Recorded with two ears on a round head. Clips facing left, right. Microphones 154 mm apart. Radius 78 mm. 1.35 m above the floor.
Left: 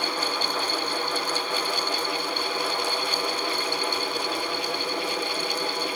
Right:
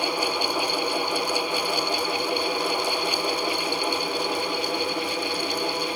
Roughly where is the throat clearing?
I don't hear throat clearing.